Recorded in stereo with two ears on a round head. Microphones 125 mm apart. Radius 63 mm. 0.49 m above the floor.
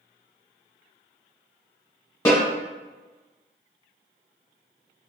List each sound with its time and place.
2.2 s a snare drum: 20° left (ahead or behind), 1.0 m